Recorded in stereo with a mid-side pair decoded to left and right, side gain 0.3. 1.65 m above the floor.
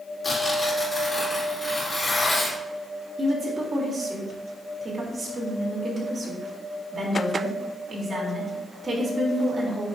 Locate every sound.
0.2 s tearing paper: 35° left, 4 m
3.2 s a woman speaking: 40° right, 3.5 m